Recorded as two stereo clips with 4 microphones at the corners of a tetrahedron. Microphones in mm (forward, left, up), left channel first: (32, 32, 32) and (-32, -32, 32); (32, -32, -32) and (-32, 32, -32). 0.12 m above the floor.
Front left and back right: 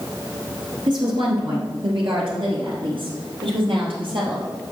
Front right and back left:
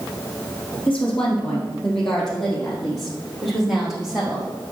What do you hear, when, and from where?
0.9 s a woman speaking: 125° right, 3 m; by 4.5 s 140° right, 4.5 m